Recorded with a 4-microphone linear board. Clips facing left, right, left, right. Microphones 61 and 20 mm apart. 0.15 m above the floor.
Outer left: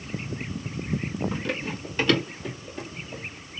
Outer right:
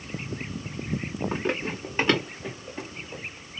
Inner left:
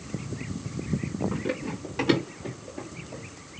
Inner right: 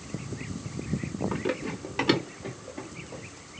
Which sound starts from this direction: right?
Running footsteps, at 1.3 s.